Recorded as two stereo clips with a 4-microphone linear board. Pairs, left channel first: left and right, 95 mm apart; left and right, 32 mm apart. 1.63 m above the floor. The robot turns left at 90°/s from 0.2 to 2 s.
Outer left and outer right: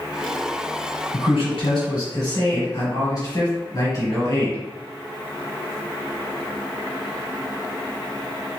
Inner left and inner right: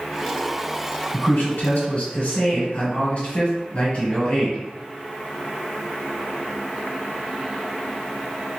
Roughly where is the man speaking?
Behind left.